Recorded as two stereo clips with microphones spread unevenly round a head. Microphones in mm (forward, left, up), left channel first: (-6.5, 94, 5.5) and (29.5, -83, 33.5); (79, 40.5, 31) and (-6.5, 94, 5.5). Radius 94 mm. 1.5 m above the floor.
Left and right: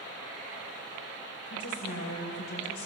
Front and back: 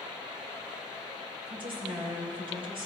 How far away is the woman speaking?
About 6 m.